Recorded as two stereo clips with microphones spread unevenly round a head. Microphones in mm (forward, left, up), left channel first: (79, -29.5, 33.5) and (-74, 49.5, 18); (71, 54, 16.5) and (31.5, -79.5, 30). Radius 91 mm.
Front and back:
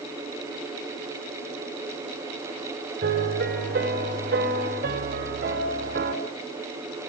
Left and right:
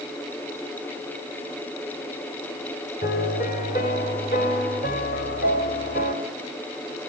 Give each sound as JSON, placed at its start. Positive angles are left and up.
{"t": 3.0, "sound": "a piano", "azimuth_deg": 115, "distance_m": 3.0}